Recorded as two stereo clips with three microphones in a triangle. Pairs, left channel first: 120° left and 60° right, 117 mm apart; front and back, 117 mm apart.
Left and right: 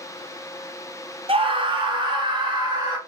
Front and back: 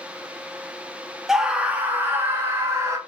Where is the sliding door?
I don't hear a sliding door.